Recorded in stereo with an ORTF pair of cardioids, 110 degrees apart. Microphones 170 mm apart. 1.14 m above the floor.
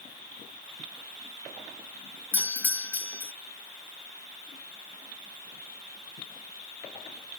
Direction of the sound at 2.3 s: 10° left.